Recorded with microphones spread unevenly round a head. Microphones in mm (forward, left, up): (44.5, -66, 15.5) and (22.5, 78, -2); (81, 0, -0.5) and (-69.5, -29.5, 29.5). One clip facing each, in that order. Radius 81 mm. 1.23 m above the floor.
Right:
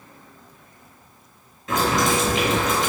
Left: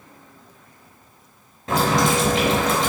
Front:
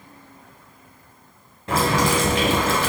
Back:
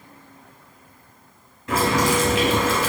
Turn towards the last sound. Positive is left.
turn(degrees=65)